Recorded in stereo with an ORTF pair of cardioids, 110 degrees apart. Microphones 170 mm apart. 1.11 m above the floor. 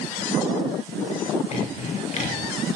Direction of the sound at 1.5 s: 40° left.